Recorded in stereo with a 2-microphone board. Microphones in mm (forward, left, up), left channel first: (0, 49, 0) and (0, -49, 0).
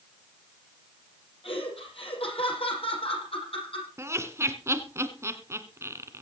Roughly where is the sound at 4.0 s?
Right.